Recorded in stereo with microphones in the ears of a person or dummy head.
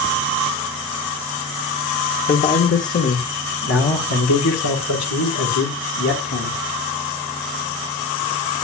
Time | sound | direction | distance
2.3 | a man speaking | 30° left (ahead or behind) | 1.7 m